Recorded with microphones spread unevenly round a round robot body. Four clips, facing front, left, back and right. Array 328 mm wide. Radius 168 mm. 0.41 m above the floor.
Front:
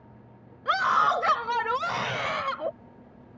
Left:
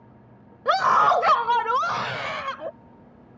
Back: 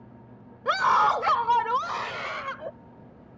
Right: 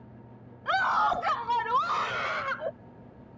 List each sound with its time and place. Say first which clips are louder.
0.7 s a scream: left 7 dB, back 2 dB; 105° left; by 2.7 s 30° left